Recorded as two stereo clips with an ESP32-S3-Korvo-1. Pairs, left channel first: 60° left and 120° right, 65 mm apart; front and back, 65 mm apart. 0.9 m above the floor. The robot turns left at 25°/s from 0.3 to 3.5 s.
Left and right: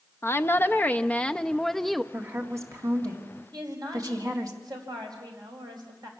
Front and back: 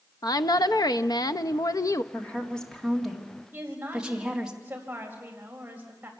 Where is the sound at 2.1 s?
65° right, 2 m; by 4.5 s 100° right, 2 m.